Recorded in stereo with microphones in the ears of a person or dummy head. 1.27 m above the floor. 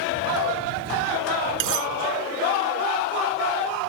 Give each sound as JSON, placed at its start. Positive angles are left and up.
{"t": 1.6, "sound": "cutlery clinking", "side_deg": -70}